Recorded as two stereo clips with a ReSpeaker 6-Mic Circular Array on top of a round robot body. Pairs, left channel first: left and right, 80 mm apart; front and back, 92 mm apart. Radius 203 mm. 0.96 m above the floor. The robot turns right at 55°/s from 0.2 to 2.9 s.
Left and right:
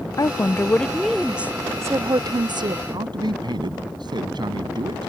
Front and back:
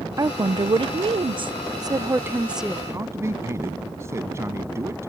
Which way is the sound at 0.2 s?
130° left.